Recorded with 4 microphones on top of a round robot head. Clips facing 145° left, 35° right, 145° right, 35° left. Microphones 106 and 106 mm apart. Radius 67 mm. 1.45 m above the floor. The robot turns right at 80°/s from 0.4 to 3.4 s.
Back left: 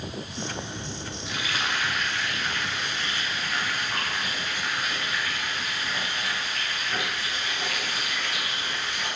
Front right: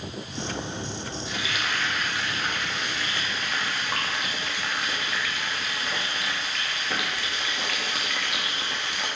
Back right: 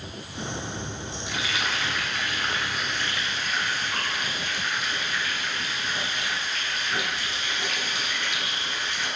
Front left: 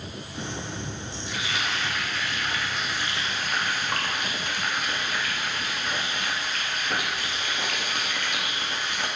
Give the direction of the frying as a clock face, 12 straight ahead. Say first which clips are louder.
Back left 2 dB, back right 1 dB; 6 o'clock.